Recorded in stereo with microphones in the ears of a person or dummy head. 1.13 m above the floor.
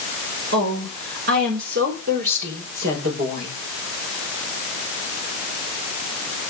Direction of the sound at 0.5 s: 65° right (ahead or behind).